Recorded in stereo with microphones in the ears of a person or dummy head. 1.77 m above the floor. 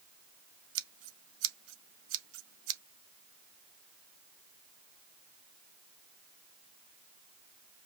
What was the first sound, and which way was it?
Scissors, 85° right.